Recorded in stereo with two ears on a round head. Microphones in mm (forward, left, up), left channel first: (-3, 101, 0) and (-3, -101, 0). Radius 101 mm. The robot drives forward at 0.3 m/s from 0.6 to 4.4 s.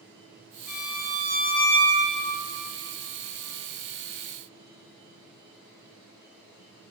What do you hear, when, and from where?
0.7 s a violin: 20° left (ahead or behind), 3.5 m